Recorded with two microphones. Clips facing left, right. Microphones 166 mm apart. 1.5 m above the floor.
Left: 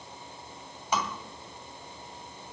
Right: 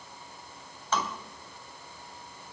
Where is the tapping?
15° left (ahead or behind), 2.5 m.